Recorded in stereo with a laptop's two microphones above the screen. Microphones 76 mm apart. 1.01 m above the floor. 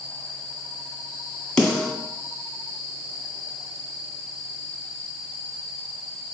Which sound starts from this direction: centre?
A snare drum, at 1.6 s.